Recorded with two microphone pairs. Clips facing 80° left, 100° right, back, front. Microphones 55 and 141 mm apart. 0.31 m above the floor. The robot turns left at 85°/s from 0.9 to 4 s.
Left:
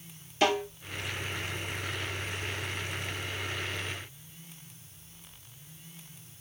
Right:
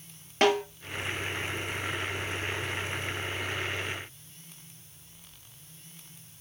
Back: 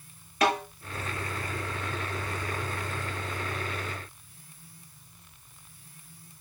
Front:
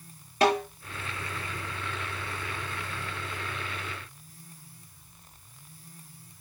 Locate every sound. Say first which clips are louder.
0.4 s a snare drum: right 3 dB, front 2 dB; 60° right, 5 m